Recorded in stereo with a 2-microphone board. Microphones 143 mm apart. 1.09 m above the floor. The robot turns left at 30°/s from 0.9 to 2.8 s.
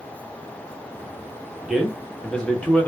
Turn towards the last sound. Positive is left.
turn(degrees=10)  # may be behind; listen again after turning